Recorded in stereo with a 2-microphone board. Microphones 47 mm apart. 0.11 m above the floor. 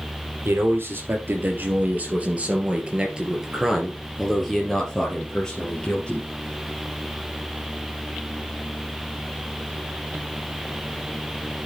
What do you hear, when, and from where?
0.5 s a man speaking: 50° right (ahead or behind), 3 m; by 6.3 s 20° left (ahead or behind), 3 m